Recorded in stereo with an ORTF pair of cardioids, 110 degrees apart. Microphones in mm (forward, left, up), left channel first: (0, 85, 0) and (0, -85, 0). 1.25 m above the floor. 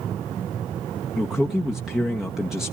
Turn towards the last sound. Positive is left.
turn(degrees=0)